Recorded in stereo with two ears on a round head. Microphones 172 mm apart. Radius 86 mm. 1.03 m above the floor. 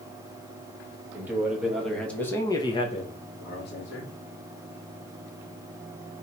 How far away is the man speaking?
About 1.7 m.